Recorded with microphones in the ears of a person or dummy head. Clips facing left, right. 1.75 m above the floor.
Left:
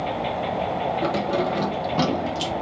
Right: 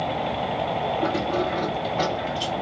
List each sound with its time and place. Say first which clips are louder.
1.0 s keys jangling: left 2 dB; 45° left (ahead or behind), 1.0 m; by 2.5 s 65° left (ahead or behind), 1.7 m